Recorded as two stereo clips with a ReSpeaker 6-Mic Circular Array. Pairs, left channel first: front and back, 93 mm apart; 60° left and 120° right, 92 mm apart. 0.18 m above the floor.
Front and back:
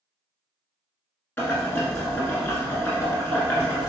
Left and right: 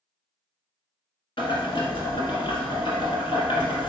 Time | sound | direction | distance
1.4 | boiling | 65° left | 1.0 m